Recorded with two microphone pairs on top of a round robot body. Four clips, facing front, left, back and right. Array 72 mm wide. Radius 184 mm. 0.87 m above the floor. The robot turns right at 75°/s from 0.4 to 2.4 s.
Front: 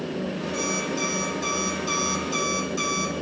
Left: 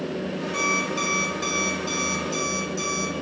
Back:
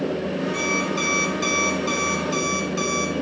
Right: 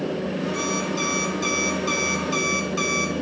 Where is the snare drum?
I don't hear a snare drum.